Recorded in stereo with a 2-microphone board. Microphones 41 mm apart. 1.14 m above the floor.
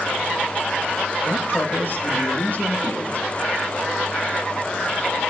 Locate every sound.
1.2 s a man speaking: 50° left (ahead or behind), 1.0 m; by 3.3 s 40° left (ahead or behind), 2.5 m